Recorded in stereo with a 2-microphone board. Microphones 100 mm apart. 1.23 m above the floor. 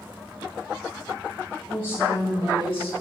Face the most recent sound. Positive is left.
turn(degrees=75)  # may be behind; listen again after turning